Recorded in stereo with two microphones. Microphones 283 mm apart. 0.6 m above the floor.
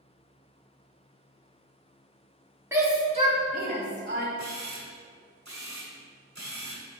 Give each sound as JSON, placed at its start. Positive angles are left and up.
{"t": 2.7, "sound": "a shout", "side_deg": -10, "distance_m": 1.5}
{"t": 4.4, "sound": "a camera shutter", "side_deg": -75, "distance_m": 1.9}